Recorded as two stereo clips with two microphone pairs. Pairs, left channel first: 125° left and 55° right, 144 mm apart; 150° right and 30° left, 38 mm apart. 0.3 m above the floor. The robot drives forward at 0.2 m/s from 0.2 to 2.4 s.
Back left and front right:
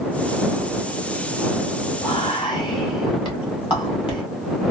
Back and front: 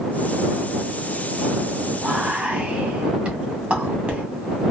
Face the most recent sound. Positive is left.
turn(degrees=80)